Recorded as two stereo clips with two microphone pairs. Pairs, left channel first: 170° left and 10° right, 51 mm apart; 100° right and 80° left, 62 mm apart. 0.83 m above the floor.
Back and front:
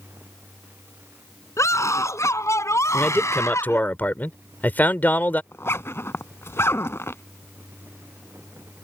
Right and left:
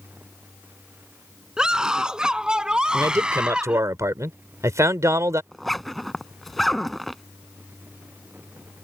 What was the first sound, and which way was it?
A scream, 160° left.